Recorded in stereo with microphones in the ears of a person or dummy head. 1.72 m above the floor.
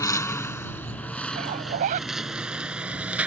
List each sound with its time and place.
0.0 s a lawn mower: 10° left (ahead or behind); by 3.3 s 10° right (ahead or behind)
1.3 s a zipper: 40° right (ahead or behind)